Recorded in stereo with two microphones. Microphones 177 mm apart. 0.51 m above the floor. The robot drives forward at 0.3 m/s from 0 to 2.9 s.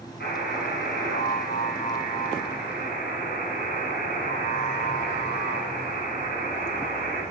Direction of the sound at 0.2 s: 70° left (ahead or behind).